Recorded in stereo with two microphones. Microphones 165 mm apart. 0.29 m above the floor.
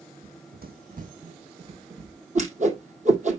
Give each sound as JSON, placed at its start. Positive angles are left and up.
{"t": 0.2, "sound": "running footsteps", "side_deg": -80, "distance_m": 0.9}
{"t": 2.4, "sound": "a whoosh", "side_deg": -45, "distance_m": 2.5}